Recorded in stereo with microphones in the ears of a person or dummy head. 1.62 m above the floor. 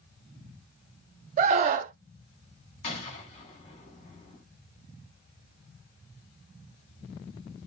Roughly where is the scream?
Right.